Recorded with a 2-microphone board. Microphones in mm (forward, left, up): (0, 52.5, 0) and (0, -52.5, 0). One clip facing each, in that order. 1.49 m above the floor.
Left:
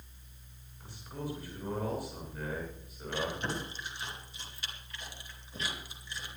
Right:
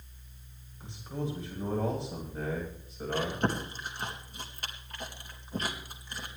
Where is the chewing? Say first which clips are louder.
Right 4 dB; 50° right (ahead or behind), 2.5 m.